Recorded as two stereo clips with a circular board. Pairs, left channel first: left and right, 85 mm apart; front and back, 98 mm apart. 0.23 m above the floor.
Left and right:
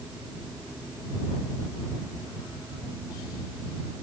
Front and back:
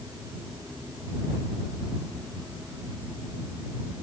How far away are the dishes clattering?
I don't hear dishes clattering.